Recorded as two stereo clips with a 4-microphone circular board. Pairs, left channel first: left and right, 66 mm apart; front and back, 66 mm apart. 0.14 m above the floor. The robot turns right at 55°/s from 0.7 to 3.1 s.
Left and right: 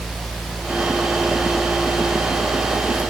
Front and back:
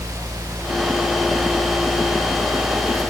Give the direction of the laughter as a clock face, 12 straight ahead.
I don't hear laughter.